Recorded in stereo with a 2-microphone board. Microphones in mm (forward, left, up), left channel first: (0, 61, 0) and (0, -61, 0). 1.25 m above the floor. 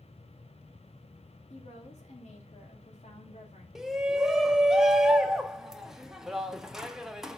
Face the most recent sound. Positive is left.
turn(degrees=-5)  # may be behind; listen again after turning